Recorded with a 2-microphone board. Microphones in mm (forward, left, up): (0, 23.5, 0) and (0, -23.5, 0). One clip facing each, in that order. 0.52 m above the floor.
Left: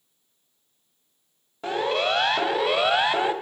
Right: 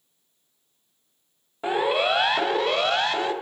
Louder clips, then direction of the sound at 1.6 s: Right 2 dB; 15° right (ahead or behind).